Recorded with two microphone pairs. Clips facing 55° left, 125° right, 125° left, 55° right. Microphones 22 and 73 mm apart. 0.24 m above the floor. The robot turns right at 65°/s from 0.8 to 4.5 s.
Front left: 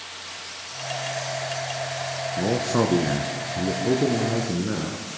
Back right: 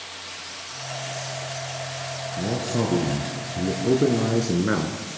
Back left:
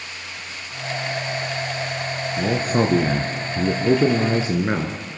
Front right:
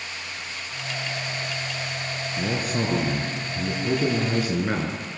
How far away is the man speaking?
About 2.5 m.